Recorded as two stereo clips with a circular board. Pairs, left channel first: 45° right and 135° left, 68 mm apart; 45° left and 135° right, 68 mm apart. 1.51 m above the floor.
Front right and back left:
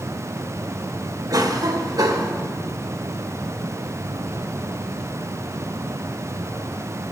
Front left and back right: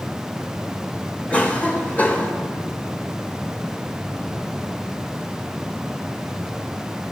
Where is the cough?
110° left, 1.4 m.